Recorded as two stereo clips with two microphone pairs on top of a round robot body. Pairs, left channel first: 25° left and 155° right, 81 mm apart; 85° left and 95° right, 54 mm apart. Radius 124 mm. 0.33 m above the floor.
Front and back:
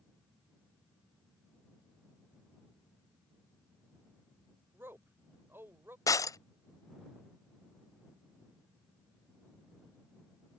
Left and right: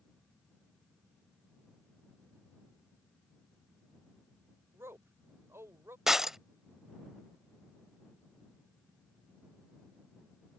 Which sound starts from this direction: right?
A man speaking, at 4.7 s.